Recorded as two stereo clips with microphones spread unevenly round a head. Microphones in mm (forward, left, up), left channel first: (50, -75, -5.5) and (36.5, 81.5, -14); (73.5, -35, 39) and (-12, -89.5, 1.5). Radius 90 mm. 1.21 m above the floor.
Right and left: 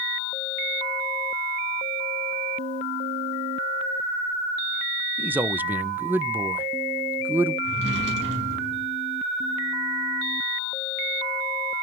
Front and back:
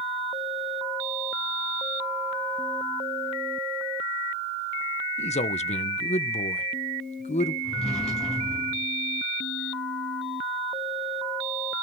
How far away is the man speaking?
About 1.1 m.